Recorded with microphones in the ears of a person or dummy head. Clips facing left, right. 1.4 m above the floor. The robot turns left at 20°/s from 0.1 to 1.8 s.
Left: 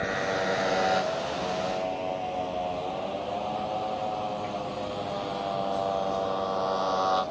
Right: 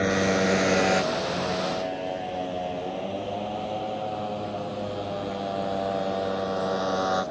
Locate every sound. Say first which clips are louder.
0.0 s a motorcycle: right 6 dB; 40° right (ahead or behind); by 7.3 s 20° right (ahead or behind)